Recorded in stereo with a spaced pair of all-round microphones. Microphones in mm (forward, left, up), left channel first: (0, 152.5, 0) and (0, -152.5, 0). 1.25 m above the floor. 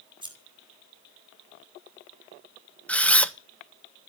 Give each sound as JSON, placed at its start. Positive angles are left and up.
{"t": 0.2, "sound": "scissors", "side_deg": -15, "distance_m": 5.0}
{"t": 2.9, "sound": "a camera shutter", "side_deg": 5, "distance_m": 1.1}